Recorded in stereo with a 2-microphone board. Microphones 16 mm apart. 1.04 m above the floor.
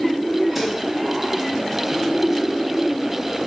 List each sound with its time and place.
0.6 s dishes clattering: 10° right (ahead or behind), 4.5 m